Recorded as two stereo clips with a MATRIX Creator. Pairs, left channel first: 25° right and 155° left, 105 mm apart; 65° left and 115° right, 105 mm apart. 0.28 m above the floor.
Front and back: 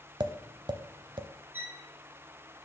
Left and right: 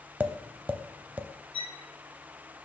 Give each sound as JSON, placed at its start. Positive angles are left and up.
{"t": 0.2, "sound": "tapping", "azimuth_deg": 180, "distance_m": 0.5}
{"t": 1.5, "sound": "a violin", "azimuth_deg": 90, "distance_m": 1.0}